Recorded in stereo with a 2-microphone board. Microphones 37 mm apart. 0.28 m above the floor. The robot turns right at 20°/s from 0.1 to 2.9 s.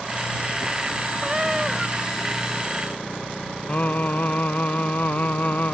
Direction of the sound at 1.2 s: 25° right (ahead or behind).